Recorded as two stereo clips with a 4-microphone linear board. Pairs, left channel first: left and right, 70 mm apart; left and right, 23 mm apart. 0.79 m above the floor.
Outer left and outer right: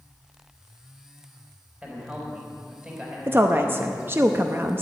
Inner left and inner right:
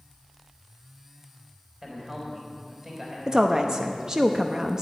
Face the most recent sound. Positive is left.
turn(degrees=-35)  # may be behind; listen again after turning